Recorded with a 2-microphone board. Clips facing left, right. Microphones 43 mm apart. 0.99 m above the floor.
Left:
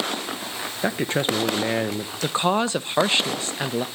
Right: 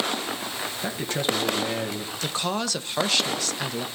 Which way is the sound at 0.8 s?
25° left (ahead or behind).